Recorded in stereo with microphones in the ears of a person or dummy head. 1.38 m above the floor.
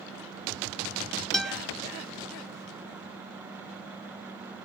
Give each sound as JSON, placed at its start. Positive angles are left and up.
{"t": 1.3, "sound": "a guitar", "side_deg": 5, "distance_m": 0.5}